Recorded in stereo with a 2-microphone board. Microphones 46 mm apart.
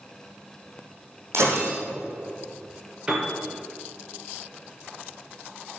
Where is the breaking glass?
70° right (ahead or behind), 5 m.